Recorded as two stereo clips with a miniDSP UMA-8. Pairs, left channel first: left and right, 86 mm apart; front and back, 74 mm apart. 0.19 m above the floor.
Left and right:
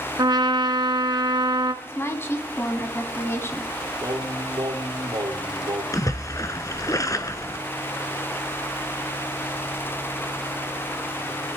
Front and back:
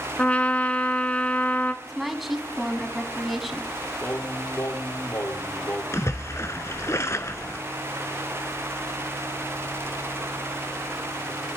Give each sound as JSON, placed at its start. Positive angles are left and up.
{"t": 0.2, "sound": "a trumpet", "azimuth_deg": -70, "distance_m": 0.8}
{"t": 1.8, "sound": "a woman speaking", "azimuth_deg": 90, "distance_m": 1.4}
{"t": 4.0, "sound": "singing", "azimuth_deg": -60, "distance_m": 4.0}
{"t": 5.9, "sound": "a splash", "azimuth_deg": 45, "distance_m": 0.7}